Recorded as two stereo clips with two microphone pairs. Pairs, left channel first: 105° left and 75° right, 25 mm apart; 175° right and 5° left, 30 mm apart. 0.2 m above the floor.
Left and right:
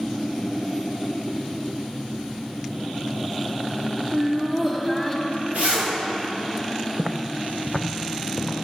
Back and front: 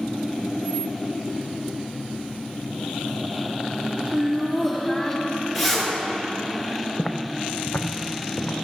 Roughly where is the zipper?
Right.